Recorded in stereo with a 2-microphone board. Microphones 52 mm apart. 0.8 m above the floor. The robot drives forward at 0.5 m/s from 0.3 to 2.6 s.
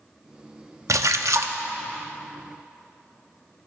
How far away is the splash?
About 0.6 m.